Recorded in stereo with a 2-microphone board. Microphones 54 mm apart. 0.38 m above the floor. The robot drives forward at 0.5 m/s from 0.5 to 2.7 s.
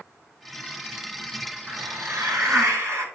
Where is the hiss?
75° right (ahead or behind), 1.8 m.